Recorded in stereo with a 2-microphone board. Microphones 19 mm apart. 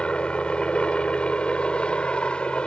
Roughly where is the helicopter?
Left.